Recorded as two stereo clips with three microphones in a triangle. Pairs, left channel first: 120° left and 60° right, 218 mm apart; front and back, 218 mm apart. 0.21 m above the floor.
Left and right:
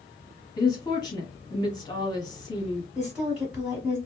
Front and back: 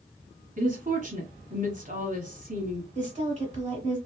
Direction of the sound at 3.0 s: 145° right.